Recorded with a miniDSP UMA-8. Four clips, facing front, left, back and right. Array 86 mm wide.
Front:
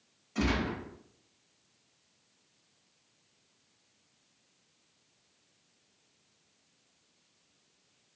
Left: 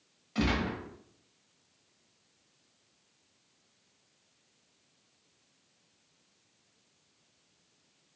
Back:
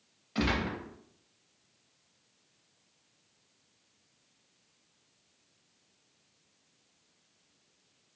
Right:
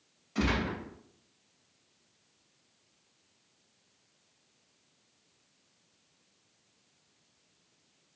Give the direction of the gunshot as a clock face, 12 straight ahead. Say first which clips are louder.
Even, even; 7 o'clock.